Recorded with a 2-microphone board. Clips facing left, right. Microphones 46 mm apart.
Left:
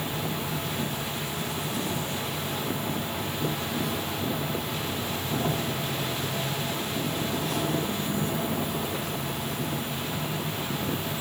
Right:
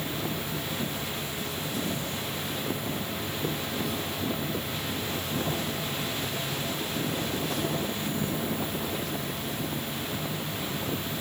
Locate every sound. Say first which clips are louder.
0.0 s an insect: left 1 dB; 60° left (ahead or behind), 8.5 m